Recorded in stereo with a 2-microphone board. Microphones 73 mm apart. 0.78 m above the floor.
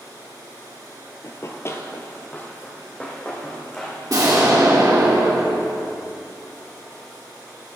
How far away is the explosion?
About 2 m.